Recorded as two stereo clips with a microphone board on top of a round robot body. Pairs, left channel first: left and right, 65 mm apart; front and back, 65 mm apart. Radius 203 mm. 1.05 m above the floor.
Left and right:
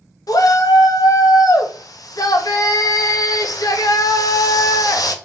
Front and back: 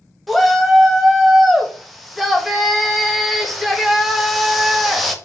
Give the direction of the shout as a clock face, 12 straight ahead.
9 o'clock.